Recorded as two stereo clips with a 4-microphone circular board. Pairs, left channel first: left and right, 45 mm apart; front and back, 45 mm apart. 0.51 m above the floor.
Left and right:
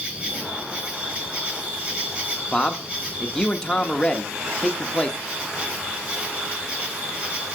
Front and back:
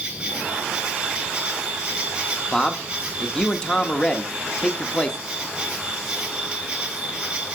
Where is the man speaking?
45° left, 0.8 m.